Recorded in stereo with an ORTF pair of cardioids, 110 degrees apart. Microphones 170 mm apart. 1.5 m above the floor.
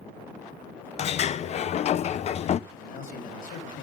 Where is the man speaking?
60° left, 4 m.